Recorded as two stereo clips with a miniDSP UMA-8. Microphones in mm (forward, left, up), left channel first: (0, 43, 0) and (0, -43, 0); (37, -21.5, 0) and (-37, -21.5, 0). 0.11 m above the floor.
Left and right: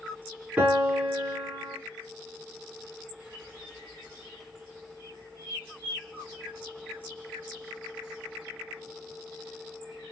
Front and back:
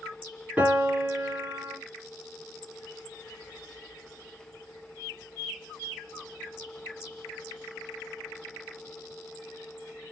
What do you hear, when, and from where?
0.6 s a piano: 135° right, 1.1 m